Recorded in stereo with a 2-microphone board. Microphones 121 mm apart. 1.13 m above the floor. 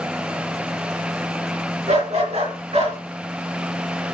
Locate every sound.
1.9 s a dog barking: 70° right (ahead or behind), 3.5 m; by 3.0 s 60° right (ahead or behind), 3.5 m